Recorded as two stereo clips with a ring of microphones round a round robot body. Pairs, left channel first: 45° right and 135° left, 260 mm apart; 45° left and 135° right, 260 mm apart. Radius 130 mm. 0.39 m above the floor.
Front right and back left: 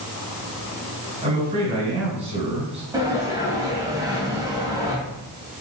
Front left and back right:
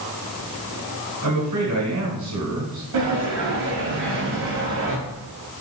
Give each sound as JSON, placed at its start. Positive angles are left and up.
{"t": 1.2, "sound": "a man speaking", "azimuth_deg": -160, "distance_m": 3.0}
{"t": 2.9, "sound": "a sliding door", "azimuth_deg": -150, "distance_m": 2.5}